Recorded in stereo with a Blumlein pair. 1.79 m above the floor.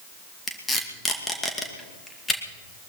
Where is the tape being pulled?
10° left, 2.5 m.